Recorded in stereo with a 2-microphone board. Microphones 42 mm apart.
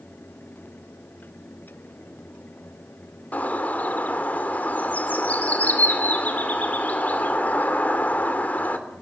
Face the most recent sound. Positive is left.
turn(degrees=45)  # may be behind; listen again after turning